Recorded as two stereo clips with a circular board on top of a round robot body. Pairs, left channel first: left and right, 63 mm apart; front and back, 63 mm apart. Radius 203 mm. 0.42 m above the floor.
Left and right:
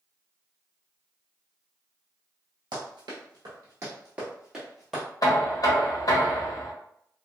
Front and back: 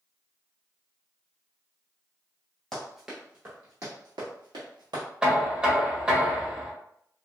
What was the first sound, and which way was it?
Running footsteps, 85° right.